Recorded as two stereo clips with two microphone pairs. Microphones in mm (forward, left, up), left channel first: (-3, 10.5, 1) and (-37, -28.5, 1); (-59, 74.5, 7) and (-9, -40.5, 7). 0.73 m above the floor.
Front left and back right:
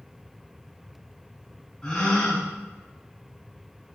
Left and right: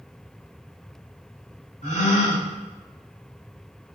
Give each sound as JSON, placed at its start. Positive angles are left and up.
{"t": 1.8, "sound": "a gasp", "azimuth_deg": 125, "distance_m": 4.0}